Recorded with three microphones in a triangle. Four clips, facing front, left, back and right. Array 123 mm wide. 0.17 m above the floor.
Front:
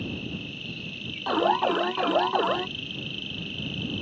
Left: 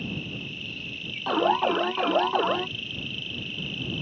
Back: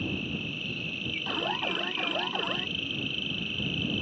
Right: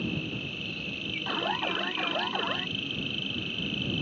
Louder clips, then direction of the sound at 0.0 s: Right 1 dB, back 1 dB; 115° right.